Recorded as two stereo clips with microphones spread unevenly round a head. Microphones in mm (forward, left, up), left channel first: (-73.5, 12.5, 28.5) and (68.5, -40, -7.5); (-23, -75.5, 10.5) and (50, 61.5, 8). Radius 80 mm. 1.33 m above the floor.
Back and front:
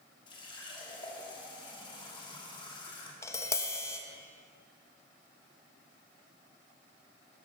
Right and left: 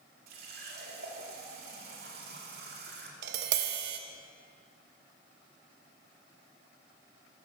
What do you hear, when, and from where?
0.3 s a running tap: 95° left, 2.5 m
3.2 s tapping: 90° left, 1.0 m